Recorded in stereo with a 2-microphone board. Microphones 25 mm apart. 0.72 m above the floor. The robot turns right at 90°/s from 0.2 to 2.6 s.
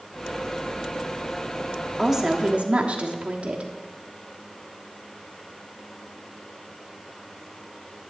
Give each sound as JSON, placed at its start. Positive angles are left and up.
{"t": 2.0, "sound": "a woman speaking", "azimuth_deg": 180, "distance_m": 1.2}